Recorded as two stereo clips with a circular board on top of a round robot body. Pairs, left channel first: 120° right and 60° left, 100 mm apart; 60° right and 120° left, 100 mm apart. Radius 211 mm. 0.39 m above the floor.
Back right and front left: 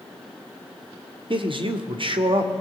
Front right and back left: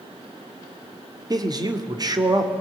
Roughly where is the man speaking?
Left.